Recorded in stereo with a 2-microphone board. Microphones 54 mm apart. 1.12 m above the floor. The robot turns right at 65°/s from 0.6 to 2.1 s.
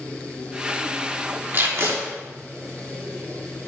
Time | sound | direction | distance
1.5 | tape being pulled | 40° right (ahead or behind) | 1.6 m